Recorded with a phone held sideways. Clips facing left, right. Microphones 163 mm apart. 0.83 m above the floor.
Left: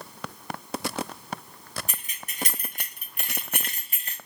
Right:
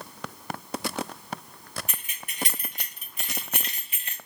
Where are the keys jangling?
35° left (ahead or behind), 0.9 m.